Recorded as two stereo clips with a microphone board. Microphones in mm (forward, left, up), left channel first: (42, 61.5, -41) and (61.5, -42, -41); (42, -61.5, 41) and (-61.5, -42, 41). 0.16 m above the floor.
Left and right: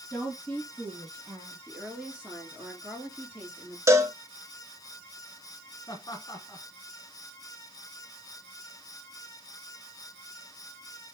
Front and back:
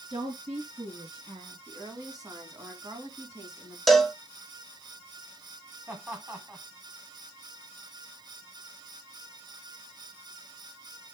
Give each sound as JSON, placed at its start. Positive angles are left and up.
{"t": 0.1, "sound": "a woman speaking", "azimuth_deg": -170, "distance_m": 2.5}
{"t": 1.7, "sound": "a woman speaking", "azimuth_deg": -155, "distance_m": 1.9}
{"t": 3.9, "sound": "a cowbell", "azimuth_deg": -100, "distance_m": 0.8}
{"t": 5.9, "sound": "laughter", "azimuth_deg": 110, "distance_m": 1.6}